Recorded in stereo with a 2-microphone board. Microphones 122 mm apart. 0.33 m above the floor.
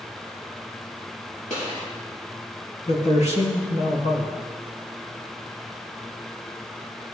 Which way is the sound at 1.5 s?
80° left.